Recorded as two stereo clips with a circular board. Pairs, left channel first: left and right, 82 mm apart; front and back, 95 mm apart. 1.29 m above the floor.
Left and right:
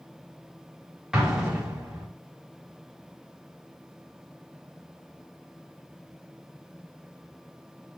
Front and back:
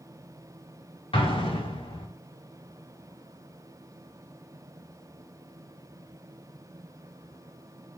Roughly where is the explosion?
Ahead.